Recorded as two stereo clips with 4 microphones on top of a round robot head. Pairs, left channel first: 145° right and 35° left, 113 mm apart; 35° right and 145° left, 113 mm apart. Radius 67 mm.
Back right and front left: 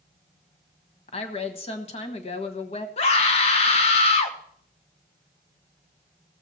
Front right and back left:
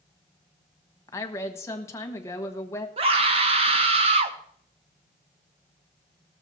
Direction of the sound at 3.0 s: Straight behind.